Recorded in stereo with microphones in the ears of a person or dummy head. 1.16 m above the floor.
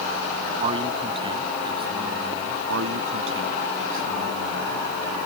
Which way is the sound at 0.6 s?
30° right (ahead or behind).